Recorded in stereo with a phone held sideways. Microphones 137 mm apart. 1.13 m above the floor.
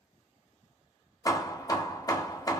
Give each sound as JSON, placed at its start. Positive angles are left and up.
{"t": 1.2, "sound": "hammering", "side_deg": 30, "distance_m": 0.5}